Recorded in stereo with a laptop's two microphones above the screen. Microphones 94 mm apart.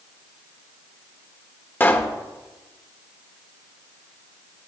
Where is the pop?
25° left (ahead or behind), 1.2 m.